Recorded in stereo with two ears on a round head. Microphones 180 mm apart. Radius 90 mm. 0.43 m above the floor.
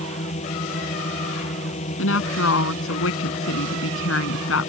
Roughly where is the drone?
Left.